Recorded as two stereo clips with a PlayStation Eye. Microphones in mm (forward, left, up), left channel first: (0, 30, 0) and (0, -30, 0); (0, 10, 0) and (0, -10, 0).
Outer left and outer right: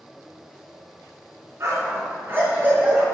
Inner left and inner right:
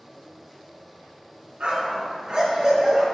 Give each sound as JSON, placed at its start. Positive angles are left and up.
{"t": 1.6, "sound": "a dog barking", "side_deg": -45, "distance_m": 3.0}